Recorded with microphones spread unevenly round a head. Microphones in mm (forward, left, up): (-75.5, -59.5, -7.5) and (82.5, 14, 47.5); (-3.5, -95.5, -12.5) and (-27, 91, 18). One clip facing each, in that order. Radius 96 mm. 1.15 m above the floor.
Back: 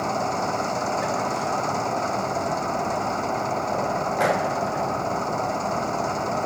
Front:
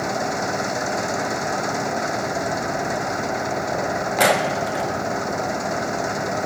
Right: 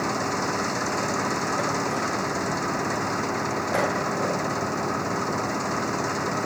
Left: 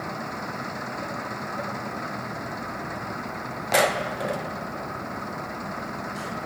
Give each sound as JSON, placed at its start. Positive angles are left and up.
{"t": 0.0, "sound": "an engine running", "azimuth_deg": -50}